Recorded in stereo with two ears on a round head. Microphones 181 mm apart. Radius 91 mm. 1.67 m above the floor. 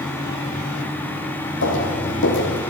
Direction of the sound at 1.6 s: 65° left (ahead or behind).